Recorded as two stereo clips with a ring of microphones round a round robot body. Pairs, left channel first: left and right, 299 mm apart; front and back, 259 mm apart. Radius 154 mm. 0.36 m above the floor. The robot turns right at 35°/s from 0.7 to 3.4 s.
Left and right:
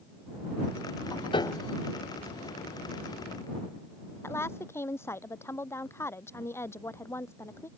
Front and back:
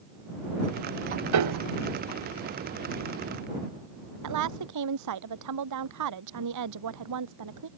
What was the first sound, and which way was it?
A piano, 165° left.